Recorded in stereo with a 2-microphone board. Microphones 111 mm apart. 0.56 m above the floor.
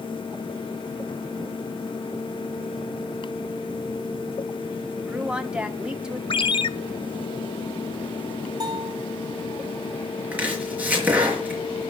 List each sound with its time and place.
5.0 s a woman speaking: 5° right (ahead or behind), 1.4 m
6.3 s a ringtone: 50° left (ahead or behind), 0.8 m
8.6 s a bell: 40° right (ahead or behind), 4 m
10.3 s chopping: 15° right (ahead or behind), 5 m